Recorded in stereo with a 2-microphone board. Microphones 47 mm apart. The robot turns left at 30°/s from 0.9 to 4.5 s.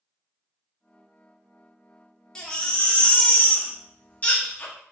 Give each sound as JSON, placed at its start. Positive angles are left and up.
{"t": 2.4, "sound": "a baby crying", "azimuth_deg": 145, "distance_m": 0.6}